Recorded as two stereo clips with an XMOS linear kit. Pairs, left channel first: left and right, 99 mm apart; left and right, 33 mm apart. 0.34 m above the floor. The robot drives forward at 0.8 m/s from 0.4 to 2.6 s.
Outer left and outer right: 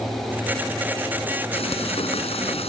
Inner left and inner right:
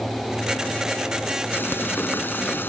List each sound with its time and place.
1.5 s frying: 70° left (ahead or behind)